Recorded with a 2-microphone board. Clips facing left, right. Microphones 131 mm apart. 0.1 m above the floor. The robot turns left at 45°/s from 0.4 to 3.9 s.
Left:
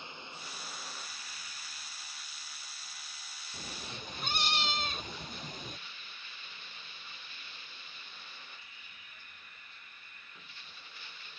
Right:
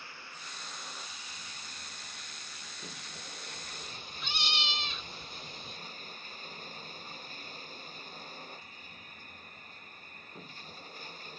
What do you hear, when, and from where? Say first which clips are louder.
0.0 s running water: left 2 dB; 20° left; by 11.4 s 140° right
3.5 s a cat meowing: left 2 dB; 60° left (ahead or behind); by 5.8 s 45° left (ahead or behind)